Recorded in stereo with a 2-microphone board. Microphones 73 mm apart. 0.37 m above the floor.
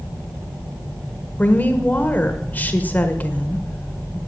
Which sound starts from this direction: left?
A woman speaking, at 1.4 s.